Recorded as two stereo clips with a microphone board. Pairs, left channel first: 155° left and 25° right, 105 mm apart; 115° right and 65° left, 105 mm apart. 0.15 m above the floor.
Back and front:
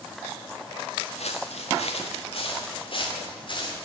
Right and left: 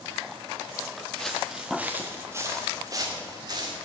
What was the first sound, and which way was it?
Footsteps, 165° left.